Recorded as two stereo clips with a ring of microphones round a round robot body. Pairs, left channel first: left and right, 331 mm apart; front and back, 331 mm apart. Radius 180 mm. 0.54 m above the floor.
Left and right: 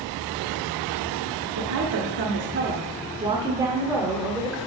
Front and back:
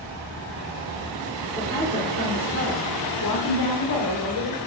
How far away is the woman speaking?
About 1.2 m.